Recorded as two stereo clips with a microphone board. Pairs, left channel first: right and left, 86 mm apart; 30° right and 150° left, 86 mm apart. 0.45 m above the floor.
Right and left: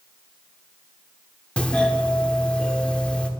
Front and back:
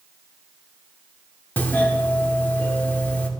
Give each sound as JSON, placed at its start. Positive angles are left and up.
{"t": 1.6, "sound": "a doorbell", "azimuth_deg": -40, "distance_m": 1.2}